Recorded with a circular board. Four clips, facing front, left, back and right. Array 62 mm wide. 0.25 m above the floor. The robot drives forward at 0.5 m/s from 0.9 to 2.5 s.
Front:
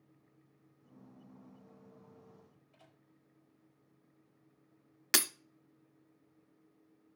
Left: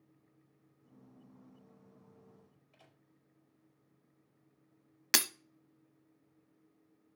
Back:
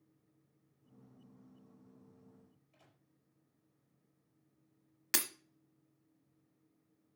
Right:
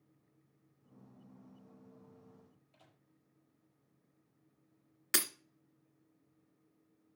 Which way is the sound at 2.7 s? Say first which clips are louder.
Left 2 dB, front 5 dB; 85° left.